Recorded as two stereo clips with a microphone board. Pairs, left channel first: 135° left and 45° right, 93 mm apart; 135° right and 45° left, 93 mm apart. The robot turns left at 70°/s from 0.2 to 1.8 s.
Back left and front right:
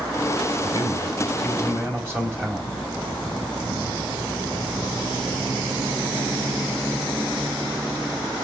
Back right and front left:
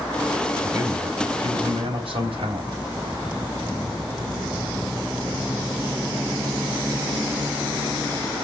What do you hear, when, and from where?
0.6 s a man speaking: 105° left, 4 m; by 2.7 s 25° left, 4 m